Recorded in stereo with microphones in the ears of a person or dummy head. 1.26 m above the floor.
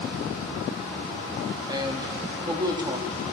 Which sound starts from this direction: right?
A man speaking, at 1.7 s.